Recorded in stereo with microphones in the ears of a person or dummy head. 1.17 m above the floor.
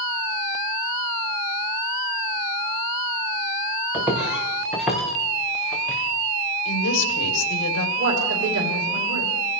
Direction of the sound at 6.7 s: 70° left (ahead or behind).